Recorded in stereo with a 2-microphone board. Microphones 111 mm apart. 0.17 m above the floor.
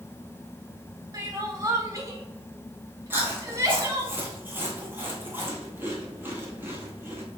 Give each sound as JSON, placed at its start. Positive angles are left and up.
{"t": 1.1, "sound": "crying", "side_deg": -30, "distance_m": 0.8}
{"t": 3.1, "sound": "chewing", "side_deg": -20, "distance_m": 1.1}